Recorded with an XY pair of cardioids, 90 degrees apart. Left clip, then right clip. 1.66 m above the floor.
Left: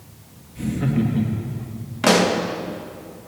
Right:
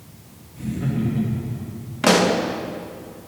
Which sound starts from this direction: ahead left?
Laughter, at 0.6 s.